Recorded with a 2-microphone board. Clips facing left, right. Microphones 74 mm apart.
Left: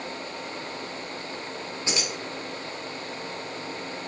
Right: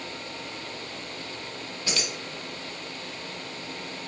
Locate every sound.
1.9 s keys jangling: 25° left (ahead or behind), 0.9 m